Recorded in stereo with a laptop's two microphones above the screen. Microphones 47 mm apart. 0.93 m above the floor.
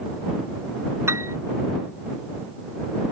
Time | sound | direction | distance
1.1 | a piano | 75° right (ahead or behind) | ?